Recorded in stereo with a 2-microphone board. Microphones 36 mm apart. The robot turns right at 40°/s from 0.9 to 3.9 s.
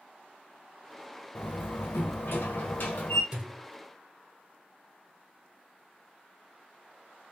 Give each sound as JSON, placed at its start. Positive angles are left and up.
{"t": 1.4, "sound": "a door slam", "azimuth_deg": 70, "distance_m": 0.9}
{"t": 3.3, "sound": "a thud", "side_deg": -25, "distance_m": 1.2}